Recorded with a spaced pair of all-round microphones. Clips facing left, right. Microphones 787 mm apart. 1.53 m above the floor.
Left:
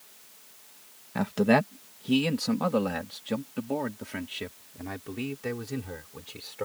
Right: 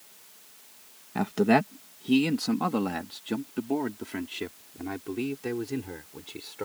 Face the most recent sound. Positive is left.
turn(degrees=15)  # may be behind; listen again after turning